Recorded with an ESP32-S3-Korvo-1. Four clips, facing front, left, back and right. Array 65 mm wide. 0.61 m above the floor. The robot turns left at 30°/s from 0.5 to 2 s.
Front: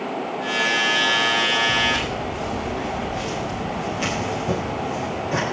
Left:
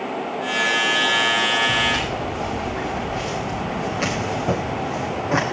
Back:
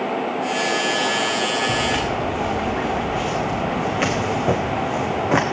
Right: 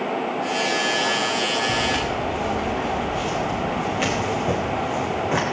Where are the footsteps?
170° right, 4.5 m; by 5.4 s 165° left, 2.5 m.